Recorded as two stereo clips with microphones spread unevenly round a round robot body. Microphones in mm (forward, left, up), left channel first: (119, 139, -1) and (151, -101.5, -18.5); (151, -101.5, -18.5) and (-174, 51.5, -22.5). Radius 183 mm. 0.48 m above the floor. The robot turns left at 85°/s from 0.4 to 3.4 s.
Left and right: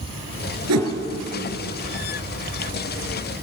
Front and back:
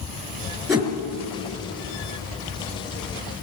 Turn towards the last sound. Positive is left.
turn(degrees=10)